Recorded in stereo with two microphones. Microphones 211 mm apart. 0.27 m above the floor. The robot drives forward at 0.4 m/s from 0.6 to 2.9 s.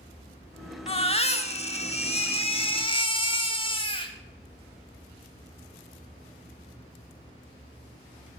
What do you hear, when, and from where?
0.9 s a baby crying: 25° left (ahead or behind), 0.8 m